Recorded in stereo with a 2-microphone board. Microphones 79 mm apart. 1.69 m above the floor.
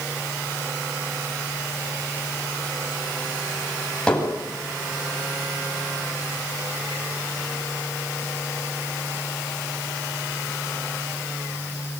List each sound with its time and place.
4.1 s hammering: 10° left (ahead or behind), 9.5 m